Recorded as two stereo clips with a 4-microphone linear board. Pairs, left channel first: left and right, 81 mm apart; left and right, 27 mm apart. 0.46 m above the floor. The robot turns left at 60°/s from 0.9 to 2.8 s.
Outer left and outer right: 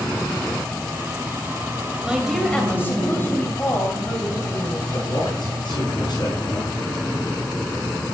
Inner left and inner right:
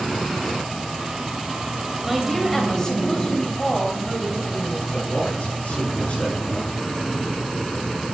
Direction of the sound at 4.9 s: 60° left (ahead or behind).